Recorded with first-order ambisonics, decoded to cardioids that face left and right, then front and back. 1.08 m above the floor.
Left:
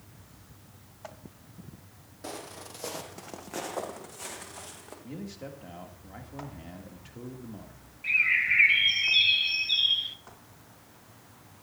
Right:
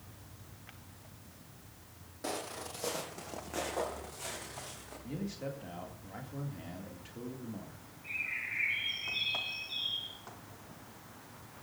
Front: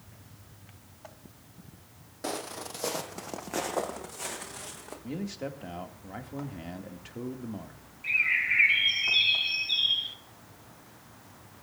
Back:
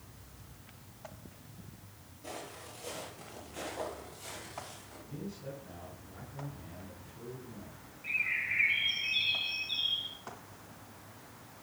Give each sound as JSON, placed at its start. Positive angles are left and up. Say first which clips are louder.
{"t": 2.2, "sound": "footsteps", "louder": "right 2 dB, front 9 dB", "azimuth_deg": -5, "distance_m": 1.8}
{"t": 5.0, "sound": "a man speaking", "louder": "right 2 dB, front 8 dB", "azimuth_deg": 5, "distance_m": 2.0}
{"t": 8.0, "sound": "a bird", "louder": "left 14 dB, front 7 dB", "azimuth_deg": 65, "distance_m": 0.8}